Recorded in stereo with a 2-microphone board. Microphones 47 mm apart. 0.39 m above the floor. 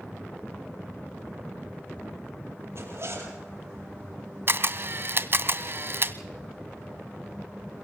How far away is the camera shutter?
About 0.6 m.